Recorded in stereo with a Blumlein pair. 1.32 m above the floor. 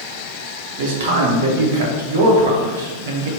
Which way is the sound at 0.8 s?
55° right.